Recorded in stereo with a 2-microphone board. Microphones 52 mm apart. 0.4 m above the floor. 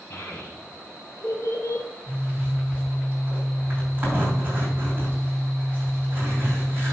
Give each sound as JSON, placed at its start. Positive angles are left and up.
{"t": 0.1, "sound": "a child speaking", "side_deg": 40, "distance_m": 1.6}
{"t": 2.1, "sound": "a zipper", "side_deg": -30, "distance_m": 5.0}